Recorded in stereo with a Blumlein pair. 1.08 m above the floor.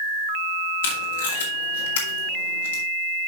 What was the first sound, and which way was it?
Tape being pulled, 60° left.